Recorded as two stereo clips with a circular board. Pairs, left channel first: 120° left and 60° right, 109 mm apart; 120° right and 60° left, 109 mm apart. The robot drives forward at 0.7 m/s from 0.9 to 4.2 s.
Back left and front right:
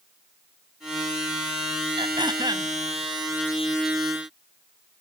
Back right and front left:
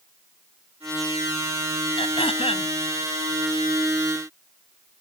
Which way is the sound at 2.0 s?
95° right.